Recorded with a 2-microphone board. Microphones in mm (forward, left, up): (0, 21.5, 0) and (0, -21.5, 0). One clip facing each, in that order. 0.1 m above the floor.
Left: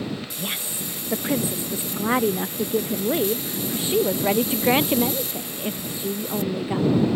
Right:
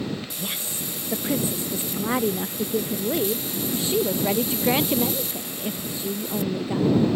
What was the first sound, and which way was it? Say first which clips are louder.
A woman speaking: left 2 dB; 20° left (ahead or behind).